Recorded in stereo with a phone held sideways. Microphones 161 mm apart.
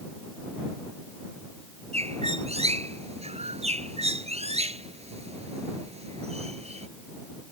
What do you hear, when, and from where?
1.9 s a bird: 40° right (ahead or behind)